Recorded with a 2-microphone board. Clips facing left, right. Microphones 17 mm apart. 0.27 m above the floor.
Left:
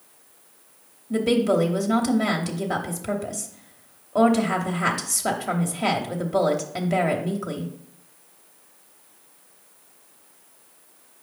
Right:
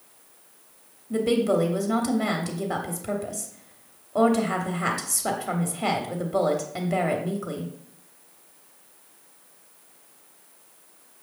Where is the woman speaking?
10° left (ahead or behind), 0.9 m.